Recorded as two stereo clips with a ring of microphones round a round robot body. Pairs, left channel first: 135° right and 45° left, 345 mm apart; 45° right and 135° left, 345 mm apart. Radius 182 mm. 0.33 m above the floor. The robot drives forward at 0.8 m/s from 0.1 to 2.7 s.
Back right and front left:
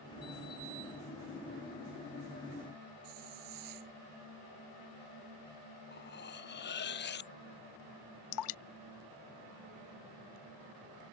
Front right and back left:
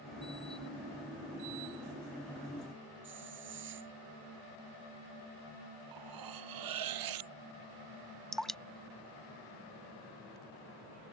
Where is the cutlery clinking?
165° left.